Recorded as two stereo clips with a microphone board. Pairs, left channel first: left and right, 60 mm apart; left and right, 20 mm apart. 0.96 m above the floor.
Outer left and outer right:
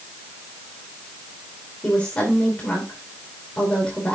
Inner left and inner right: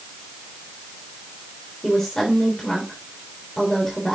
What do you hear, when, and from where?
1.8 s a woman speaking: 20° left (ahead or behind), 3 m